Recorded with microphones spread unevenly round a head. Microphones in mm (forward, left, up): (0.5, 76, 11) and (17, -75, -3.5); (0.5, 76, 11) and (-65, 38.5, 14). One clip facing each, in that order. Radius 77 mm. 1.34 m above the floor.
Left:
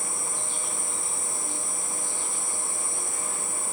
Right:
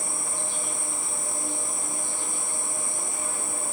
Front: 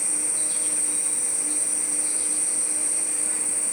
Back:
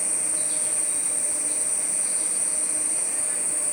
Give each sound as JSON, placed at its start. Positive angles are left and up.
{"t": 0.0, "sound": "an insect", "azimuth_deg": -160, "distance_m": 1.3}